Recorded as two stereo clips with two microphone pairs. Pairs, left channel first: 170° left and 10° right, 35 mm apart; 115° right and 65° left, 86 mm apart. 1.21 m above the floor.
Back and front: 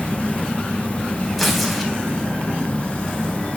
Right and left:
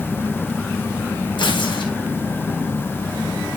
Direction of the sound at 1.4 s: 100° right.